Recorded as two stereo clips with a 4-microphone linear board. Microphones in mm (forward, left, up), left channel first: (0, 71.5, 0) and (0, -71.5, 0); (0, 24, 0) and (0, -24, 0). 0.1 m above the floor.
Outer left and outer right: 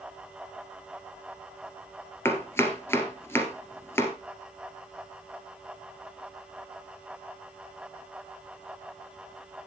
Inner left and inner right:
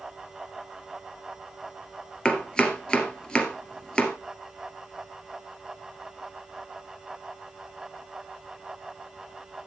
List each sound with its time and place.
2.2 s chopping: 20° left (ahead or behind), 2 m